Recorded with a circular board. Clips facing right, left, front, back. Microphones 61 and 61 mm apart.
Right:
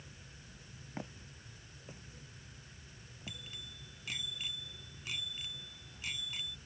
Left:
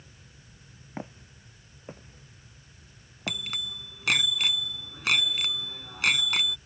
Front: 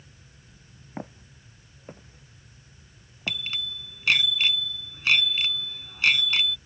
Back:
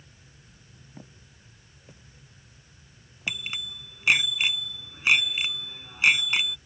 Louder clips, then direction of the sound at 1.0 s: Left 6 dB, front 12 dB; 25° left.